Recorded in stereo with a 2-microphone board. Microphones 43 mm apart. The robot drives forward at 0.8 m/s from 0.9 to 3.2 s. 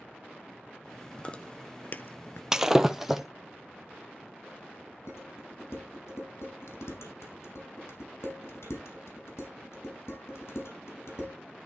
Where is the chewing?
25° left (ahead or behind), 1.3 m; by 2.4 s 65° left (ahead or behind), 0.6 m.